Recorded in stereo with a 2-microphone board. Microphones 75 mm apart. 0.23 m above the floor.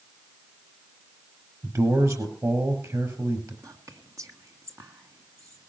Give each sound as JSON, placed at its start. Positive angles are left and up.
{"t": 1.6, "sound": "a man speaking", "side_deg": -45, "distance_m": 5.0}
{"t": 3.6, "sound": "whispering", "side_deg": -45, "distance_m": 1.7}